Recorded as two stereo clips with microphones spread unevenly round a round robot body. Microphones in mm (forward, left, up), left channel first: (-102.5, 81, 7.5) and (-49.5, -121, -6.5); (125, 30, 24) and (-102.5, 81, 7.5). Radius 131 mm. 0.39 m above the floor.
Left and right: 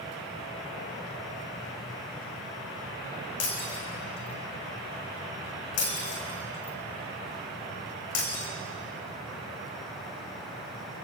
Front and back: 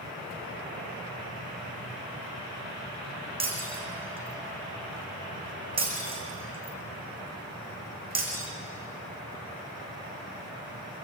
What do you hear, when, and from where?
3.4 s breaking glass: 100° left, 5 m